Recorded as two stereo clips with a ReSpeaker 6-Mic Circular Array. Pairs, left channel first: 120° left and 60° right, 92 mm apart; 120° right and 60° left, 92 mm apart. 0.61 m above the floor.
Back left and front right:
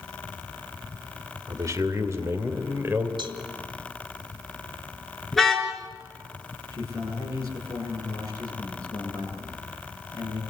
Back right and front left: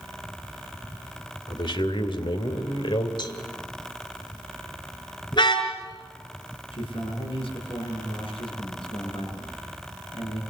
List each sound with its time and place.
1.5 s a man speaking: 110° right, 2.5 m; by 3.1 s 125° right, 3 m
3.2 s a cowbell: 90° right, 1.7 m
5.3 s a car horn: 155° right, 4 m
6.7 s a man speaking: 110° right, 9.5 m